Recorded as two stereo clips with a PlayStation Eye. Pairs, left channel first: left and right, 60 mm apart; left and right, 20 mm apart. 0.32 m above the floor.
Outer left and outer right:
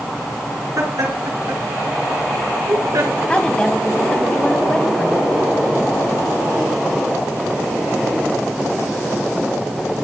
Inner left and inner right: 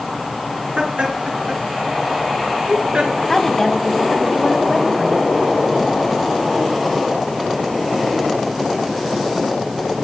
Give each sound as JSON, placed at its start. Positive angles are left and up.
{"t": 0.8, "sound": "laughter", "side_deg": -70, "distance_m": 4.5}
{"t": 3.3, "sound": "a woman speaking", "side_deg": 20, "distance_m": 2.5}